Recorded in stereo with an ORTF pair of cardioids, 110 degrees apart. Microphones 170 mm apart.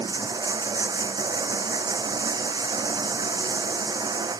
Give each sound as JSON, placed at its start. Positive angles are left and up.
{"t": 0.0, "sound": "running water", "azimuth_deg": -25}